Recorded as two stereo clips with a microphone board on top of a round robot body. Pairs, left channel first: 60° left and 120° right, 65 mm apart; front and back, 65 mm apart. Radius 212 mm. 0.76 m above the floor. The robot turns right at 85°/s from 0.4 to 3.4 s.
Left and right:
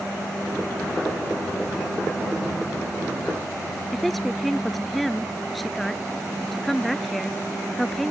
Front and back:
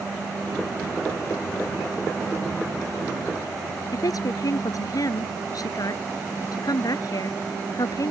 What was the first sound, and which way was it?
A woman speaking, 30° right.